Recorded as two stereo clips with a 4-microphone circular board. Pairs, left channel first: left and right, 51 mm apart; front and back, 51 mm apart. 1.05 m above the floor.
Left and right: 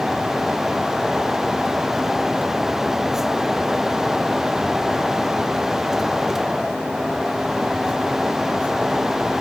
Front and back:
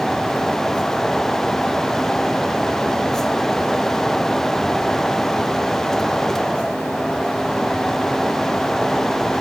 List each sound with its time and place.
Only background noise.